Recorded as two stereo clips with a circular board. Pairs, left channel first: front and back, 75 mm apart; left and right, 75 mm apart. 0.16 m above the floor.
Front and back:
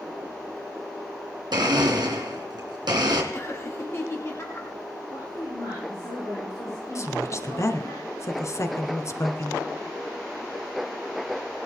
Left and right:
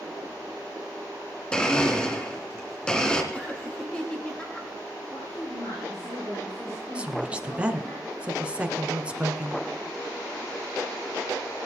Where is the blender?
165° left, 3 m.